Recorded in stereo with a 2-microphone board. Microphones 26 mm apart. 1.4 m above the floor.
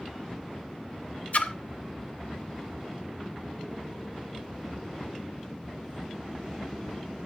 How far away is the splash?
About 0.7 m.